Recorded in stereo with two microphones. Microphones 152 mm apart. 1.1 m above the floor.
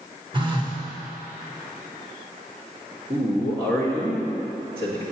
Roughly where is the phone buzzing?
Right.